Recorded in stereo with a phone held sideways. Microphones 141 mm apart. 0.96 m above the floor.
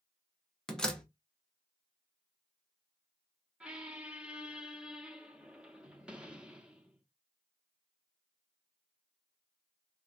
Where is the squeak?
5° right (ahead or behind), 0.6 m.